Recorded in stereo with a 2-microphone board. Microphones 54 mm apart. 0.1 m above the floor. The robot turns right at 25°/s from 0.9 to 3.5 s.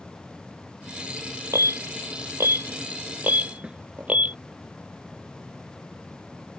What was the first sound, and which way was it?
An alarm, 60° right (ahead or behind).